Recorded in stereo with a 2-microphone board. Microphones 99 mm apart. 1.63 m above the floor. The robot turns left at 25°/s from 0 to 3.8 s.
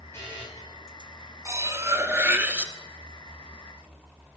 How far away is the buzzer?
About 8.5 m.